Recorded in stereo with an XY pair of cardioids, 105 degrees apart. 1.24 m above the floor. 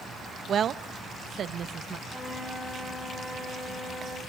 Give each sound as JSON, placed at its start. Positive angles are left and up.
{"t": 0.5, "sound": "a woman speaking", "azimuth_deg": -50, "distance_m": 1.0}
{"t": 2.1, "sound": "a flute", "azimuth_deg": 0, "distance_m": 9.0}